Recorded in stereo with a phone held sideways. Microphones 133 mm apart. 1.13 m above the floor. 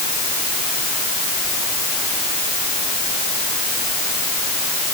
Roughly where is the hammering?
I don't hear hammering.